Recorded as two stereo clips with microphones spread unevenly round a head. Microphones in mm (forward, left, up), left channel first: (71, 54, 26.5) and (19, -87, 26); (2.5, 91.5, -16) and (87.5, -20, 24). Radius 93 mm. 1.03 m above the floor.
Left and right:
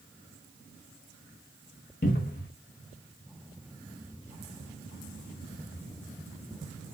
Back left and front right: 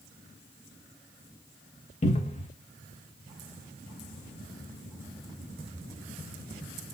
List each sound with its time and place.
2.0 s a cupboard door: 100° left, 0.9 m